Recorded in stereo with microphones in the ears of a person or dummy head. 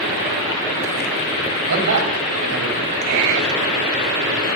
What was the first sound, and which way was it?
A man speaking, 60° right (ahead or behind).